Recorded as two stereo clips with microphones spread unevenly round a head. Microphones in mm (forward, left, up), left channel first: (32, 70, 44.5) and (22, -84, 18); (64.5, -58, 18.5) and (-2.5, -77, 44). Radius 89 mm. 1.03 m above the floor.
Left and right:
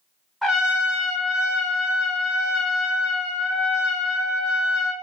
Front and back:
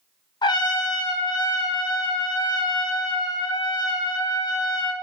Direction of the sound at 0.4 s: Straight ahead.